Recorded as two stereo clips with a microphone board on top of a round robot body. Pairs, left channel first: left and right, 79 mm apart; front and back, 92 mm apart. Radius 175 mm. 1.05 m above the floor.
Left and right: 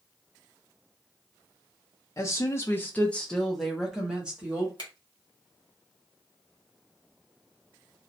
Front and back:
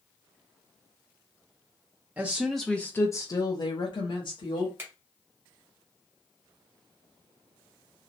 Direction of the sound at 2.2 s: 115° left.